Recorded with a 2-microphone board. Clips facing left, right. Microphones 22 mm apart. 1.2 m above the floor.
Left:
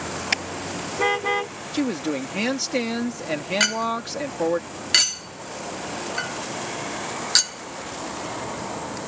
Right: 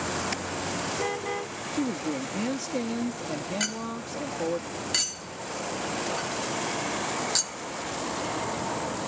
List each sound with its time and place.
0.3 s a car horn: 55° left (ahead or behind); by 1.5 s 50° left (ahead or behind)
1.7 s a woman speaking: 80° left
3.6 s a clink: 50° left (ahead or behind)